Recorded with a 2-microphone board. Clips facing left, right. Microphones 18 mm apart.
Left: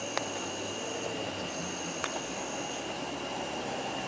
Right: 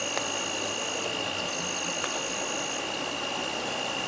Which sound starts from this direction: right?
An insect, at 0.0 s.